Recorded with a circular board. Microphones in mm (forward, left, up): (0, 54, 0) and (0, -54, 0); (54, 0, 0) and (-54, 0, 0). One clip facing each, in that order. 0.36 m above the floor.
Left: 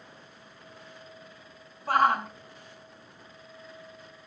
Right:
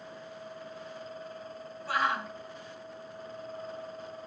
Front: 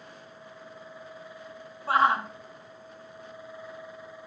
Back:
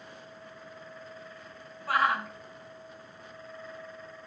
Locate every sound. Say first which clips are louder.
1.9 s a shout: left 7 dB, front 4 dB; 60° left, 2 m